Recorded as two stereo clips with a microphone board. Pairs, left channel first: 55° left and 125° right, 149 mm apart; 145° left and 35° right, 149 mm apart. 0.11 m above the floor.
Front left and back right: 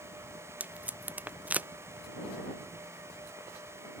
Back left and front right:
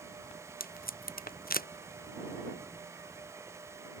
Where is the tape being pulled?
155° left.